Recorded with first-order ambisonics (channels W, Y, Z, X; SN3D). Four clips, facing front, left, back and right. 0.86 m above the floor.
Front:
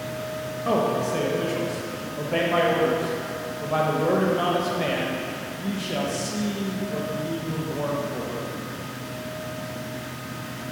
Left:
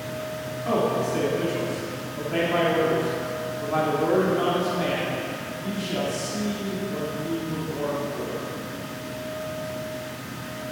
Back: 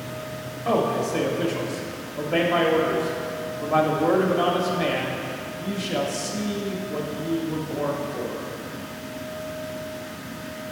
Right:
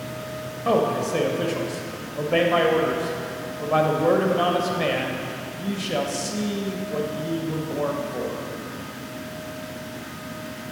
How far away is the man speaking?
About 0.8 m.